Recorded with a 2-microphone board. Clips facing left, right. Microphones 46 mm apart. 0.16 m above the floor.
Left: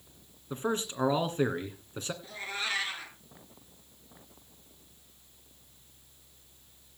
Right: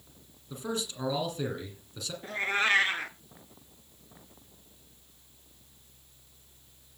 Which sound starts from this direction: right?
A cat meowing, at 2.2 s.